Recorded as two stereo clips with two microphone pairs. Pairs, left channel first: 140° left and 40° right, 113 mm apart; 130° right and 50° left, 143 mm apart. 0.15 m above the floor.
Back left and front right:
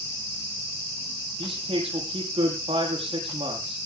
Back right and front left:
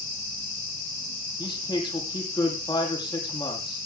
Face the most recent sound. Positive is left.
turn(degrees=-70)